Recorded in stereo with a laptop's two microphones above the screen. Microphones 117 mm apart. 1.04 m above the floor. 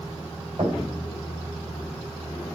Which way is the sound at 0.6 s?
50° right (ahead or behind).